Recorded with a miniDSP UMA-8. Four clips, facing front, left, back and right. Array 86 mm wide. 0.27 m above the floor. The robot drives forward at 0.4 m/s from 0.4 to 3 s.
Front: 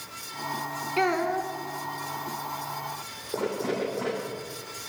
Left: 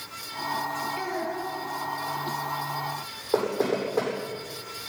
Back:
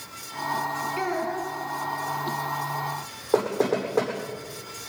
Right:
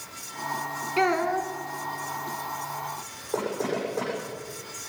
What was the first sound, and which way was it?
A child speaking, 60° right.